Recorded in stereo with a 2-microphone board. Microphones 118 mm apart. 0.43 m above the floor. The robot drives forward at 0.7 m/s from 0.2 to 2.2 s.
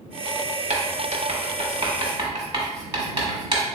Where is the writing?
75° right (ahead or behind), 0.8 m; by 3.6 s 40° right (ahead or behind), 1.2 m.